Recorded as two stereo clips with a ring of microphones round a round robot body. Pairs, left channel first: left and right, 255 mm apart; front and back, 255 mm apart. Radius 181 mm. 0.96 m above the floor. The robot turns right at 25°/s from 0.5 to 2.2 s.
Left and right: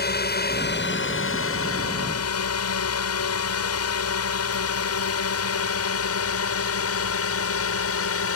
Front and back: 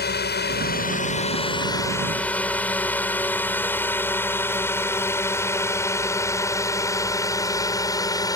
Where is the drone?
45° left; by 8.4 s 75° left.